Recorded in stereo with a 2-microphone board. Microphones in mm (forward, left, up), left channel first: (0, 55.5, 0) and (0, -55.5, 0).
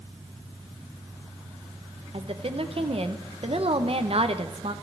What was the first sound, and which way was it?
A woman speaking, 60° right (ahead or behind).